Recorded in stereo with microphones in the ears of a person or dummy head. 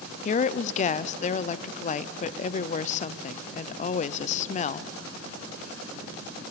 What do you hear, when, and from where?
0.2 s a woman speaking: 35° left (ahead or behind), 0.6 m